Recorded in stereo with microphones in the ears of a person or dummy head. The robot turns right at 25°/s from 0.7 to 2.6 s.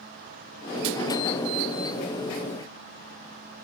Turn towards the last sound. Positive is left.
No sound to turn to.